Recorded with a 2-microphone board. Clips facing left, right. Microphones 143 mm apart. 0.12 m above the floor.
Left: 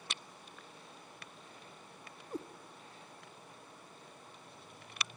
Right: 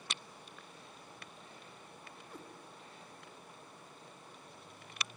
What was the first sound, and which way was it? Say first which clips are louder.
A cat meowing: left 11 dB; 40° left (ahead or behind).